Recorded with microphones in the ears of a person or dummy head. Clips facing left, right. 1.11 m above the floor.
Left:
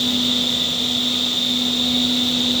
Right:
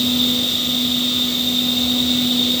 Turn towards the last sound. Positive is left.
turn(degrees=-45)  # may be behind; listen again after turning